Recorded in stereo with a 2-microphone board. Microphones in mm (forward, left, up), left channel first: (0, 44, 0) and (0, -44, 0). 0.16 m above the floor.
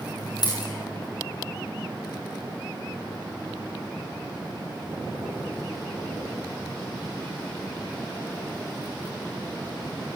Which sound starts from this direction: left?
A dropped coin, at 0.4 s.